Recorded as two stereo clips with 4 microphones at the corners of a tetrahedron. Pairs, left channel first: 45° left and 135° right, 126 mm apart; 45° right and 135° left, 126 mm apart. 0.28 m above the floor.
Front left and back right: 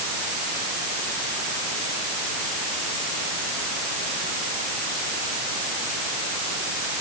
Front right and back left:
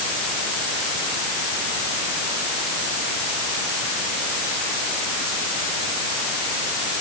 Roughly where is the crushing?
I don't hear crushing.